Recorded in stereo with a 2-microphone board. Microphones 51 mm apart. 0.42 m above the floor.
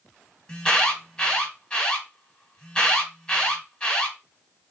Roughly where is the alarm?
Centre.